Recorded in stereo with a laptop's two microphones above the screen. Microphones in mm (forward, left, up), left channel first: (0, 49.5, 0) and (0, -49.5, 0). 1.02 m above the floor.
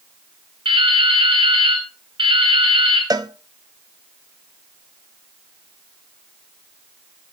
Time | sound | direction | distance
0.7 | dripping | 65° right (ahead or behind) | 6.5 m
3.1 | a cowbell | 40° right (ahead or behind) | 0.8 m